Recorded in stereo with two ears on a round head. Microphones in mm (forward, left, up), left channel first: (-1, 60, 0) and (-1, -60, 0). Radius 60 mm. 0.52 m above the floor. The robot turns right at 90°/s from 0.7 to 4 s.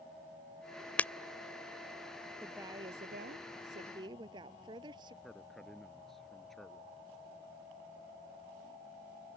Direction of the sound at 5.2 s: 5° left (ahead or behind).